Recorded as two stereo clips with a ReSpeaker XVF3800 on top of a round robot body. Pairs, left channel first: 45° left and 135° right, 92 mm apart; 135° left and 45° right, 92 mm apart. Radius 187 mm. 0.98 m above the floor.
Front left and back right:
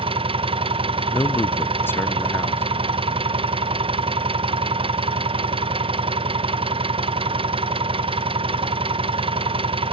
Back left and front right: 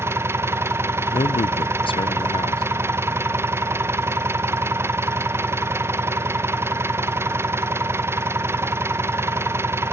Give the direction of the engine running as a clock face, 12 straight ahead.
4 o'clock.